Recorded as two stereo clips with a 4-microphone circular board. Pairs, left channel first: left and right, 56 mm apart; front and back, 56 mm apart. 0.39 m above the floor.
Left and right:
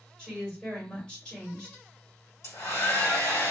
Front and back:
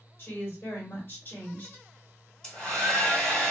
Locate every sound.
0.2 s a woman speaking: 25° left, 1.9 m
2.4 s a hair dryer: 70° left, 1.5 m